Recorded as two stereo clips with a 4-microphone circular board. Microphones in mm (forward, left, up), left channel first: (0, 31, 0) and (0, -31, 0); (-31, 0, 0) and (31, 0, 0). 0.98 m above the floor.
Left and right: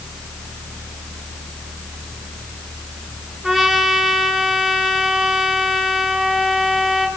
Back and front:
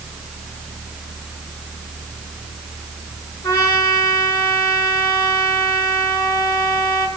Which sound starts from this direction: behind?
A trumpet, at 3.4 s.